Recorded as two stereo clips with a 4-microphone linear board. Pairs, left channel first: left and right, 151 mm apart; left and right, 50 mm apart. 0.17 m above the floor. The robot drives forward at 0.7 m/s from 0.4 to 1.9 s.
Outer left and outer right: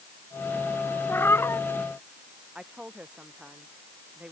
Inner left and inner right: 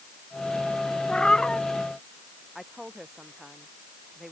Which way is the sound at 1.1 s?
15° left (ahead or behind).